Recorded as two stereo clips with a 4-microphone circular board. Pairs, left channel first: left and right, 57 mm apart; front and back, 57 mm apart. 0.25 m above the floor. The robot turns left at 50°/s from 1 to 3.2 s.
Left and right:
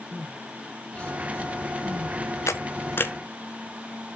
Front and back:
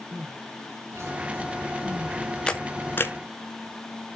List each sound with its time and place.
0.1 s crying: 155° left, 2 m; by 2.2 s 100° left, 2 m
2.5 s a camera shutter: 75° left, 1.2 m; by 3.1 s 40° left, 1.2 m